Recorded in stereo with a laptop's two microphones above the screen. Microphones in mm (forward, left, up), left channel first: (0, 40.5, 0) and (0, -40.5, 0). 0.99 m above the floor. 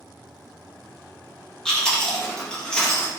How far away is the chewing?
About 1.4 m.